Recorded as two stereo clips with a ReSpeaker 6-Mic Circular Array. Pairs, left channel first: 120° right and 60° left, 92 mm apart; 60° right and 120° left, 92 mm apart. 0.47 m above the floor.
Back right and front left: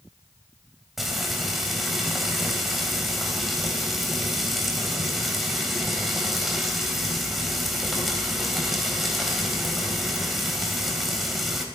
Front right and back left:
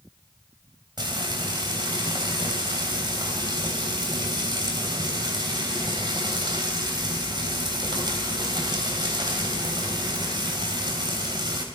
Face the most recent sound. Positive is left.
turn(degrees=150)